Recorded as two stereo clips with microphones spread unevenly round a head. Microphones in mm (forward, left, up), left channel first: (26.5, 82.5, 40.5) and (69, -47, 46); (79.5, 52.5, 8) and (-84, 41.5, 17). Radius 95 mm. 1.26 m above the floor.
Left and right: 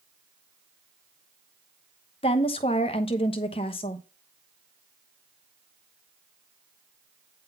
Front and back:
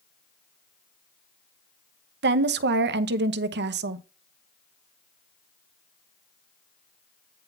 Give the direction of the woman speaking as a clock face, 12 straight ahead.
6 o'clock.